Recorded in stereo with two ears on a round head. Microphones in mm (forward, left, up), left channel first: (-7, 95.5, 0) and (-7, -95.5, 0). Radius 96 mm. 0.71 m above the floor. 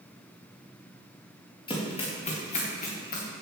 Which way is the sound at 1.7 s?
25° left (ahead or behind).